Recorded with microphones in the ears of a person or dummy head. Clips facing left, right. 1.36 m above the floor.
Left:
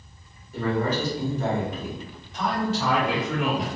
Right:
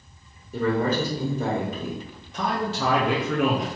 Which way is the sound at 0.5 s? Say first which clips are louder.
Right 2 dB; 70° right (ahead or behind).